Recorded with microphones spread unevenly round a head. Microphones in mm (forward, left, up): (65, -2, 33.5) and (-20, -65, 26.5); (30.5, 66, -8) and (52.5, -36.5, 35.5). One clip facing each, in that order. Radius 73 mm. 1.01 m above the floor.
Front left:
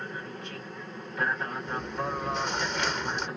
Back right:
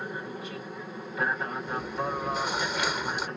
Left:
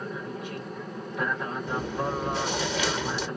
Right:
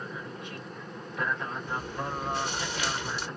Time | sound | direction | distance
0.0 | an aircraft | 145° left | ?
1.7 | chewing | 130° left | ?